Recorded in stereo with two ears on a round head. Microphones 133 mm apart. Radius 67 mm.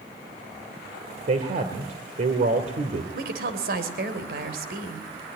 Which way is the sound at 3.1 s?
70° right (ahead or behind).